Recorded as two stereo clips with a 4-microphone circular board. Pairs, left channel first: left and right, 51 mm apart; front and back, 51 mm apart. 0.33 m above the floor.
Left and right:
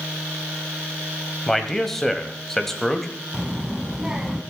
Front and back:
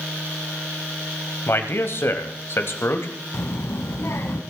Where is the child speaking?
15° right, 1.6 m.